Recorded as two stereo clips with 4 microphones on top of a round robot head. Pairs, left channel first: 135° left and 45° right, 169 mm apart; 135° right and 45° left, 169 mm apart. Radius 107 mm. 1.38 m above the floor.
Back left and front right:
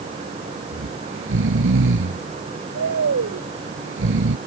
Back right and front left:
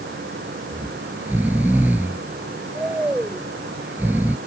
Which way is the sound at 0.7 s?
40° right.